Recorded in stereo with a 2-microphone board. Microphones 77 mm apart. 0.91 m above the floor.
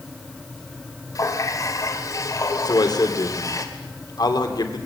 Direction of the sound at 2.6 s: 60° left (ahead or behind).